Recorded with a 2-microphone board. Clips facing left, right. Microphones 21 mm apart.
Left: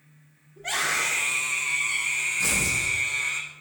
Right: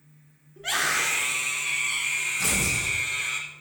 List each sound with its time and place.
0.6 s a scream: 50° right (ahead or behind), 3.5 m
2.4 s tearing paper: 50° right (ahead or behind), 4 m